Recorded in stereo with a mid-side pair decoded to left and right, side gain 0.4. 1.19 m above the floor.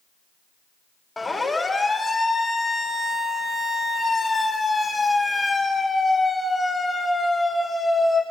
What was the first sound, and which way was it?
A siren, 25° left.